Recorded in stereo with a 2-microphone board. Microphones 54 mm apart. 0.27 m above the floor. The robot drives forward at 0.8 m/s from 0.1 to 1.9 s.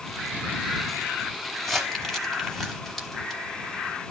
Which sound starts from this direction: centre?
Crumpling, at 1.6 s.